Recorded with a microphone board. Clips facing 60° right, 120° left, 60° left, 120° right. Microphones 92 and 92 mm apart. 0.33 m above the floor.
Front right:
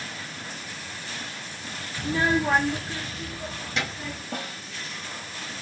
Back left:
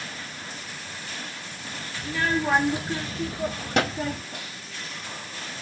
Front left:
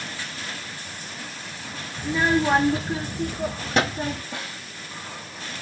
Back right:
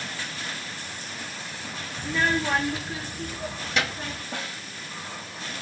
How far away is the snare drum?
About 6.5 m.